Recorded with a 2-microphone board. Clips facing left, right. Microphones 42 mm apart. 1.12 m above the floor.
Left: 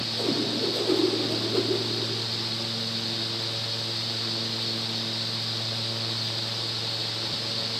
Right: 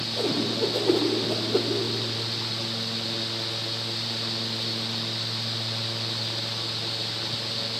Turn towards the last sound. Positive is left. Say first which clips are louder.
# right 2 dB
turn(degrees=-25)  # may be behind; listen again after turning